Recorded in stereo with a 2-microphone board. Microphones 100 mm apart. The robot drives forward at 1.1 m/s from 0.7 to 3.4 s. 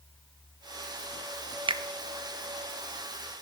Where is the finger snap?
60° right (ahead or behind), 0.7 m; by 1.8 s 55° right (ahead or behind), 0.7 m.